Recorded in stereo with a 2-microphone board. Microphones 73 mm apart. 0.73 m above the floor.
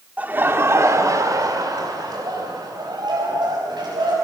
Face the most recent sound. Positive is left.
turn(degrees=-80)